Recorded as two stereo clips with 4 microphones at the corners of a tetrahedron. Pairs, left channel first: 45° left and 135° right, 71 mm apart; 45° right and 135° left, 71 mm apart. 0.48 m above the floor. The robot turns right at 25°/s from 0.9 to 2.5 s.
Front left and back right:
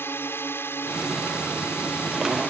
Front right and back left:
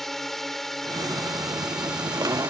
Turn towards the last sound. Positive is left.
turn(degrees=75)